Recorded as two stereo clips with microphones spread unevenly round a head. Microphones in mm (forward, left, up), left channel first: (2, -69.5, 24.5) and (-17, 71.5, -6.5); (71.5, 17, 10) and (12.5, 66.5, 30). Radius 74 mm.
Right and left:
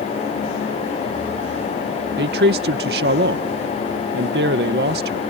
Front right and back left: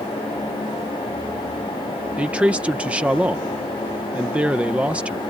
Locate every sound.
2.2 s a man speaking: 80° left